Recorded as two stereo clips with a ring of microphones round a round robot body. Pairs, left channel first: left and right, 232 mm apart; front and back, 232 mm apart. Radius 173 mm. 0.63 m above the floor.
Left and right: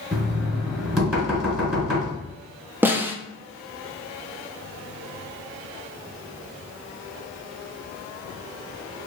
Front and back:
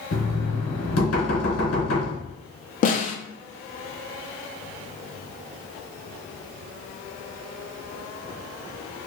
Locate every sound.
0.1 s knocking: straight ahead, 1.7 m
2.8 s a snare drum: 15° right, 0.5 m